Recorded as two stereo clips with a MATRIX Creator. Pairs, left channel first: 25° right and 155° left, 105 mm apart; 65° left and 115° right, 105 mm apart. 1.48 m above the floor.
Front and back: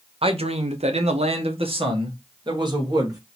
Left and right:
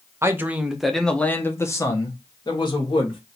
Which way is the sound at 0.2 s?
175° right.